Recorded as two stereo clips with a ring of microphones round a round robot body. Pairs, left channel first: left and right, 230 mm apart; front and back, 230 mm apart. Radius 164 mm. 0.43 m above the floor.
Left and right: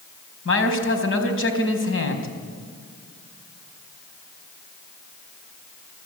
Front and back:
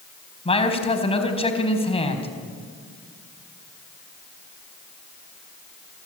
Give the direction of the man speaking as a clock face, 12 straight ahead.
10 o'clock.